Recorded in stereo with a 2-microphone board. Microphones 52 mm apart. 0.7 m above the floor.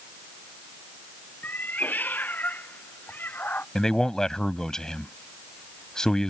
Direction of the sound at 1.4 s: 35° left (ahead or behind).